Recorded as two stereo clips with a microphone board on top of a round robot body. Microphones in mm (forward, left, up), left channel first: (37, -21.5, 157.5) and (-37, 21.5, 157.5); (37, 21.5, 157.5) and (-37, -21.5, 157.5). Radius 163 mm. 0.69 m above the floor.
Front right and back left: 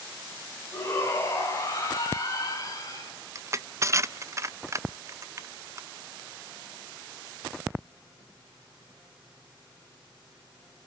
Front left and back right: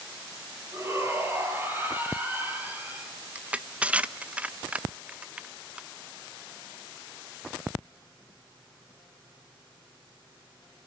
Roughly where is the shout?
Right.